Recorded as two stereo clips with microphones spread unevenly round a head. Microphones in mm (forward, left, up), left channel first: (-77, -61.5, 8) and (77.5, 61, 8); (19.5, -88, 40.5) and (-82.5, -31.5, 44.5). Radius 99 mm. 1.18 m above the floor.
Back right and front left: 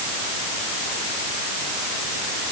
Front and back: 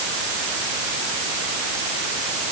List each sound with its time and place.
Only background noise.